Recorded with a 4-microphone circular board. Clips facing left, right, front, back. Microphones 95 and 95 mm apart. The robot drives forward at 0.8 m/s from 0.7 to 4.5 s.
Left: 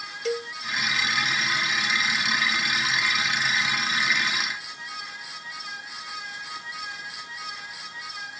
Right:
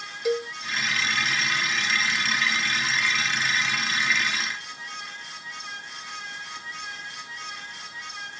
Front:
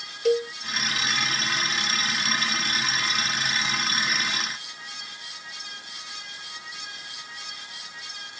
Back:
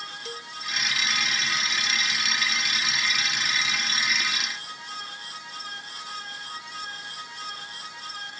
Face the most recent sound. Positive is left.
turn(degrees=-150)